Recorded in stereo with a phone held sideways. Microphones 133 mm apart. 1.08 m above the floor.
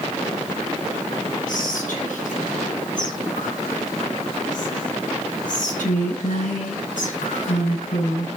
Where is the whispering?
85° left, 9.5 m.